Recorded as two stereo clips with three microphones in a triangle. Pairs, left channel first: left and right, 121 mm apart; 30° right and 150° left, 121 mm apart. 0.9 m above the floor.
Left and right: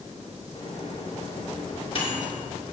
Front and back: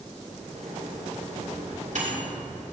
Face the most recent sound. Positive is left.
turn(degrees=130)